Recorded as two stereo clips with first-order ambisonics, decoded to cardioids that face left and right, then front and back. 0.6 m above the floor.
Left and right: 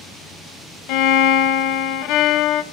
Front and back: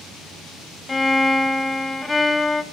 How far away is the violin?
About 0.7 m.